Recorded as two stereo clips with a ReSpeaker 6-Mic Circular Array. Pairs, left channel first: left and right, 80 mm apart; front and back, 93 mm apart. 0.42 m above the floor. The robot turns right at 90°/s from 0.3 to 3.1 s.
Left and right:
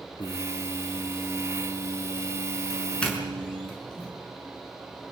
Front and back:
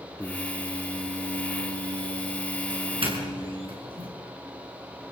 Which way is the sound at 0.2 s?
75° left.